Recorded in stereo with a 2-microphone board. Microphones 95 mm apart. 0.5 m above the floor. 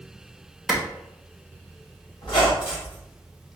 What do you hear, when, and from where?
0.7 s a clap: 5° right (ahead or behind), 1.5 m
2.2 s a squeak: 70° left (ahead or behind), 2.5 m